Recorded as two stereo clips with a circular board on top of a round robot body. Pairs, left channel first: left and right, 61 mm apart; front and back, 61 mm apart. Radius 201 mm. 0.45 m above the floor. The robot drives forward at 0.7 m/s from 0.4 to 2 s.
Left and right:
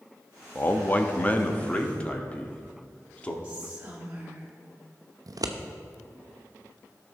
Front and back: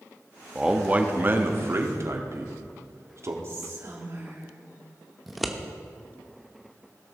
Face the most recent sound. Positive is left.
turn(degrees=-90)